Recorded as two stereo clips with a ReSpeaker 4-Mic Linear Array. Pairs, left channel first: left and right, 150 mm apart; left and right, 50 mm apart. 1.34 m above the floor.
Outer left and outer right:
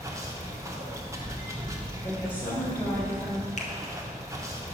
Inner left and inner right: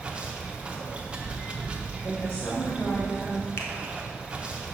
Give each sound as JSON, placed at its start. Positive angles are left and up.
{"t": 0.0, "sound": "running water", "side_deg": -20, "distance_m": 0.8}
{"t": 2.0, "sound": "a woman speaking", "side_deg": 35, "distance_m": 2.0}
{"t": 3.6, "sound": "a finger snap", "side_deg": 50, "distance_m": 0.8}